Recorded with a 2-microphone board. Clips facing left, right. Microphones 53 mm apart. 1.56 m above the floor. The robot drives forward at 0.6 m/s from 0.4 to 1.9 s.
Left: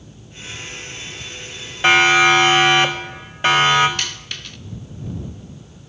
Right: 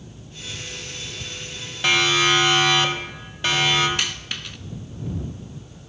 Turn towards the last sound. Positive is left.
turn(degrees=-15)  # may be behind; listen again after turning